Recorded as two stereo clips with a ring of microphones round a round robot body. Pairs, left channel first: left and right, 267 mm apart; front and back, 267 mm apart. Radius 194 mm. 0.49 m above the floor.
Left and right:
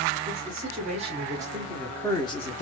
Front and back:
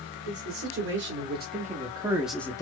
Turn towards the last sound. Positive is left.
turn(degrees=65)